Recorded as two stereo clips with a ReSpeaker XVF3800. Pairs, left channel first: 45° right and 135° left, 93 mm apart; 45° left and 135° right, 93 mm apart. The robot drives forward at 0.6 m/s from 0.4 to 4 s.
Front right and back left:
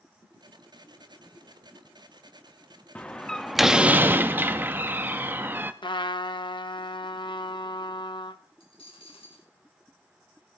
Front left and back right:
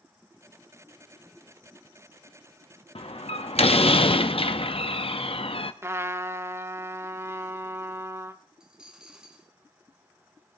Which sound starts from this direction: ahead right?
A dropped coin, at 8.6 s.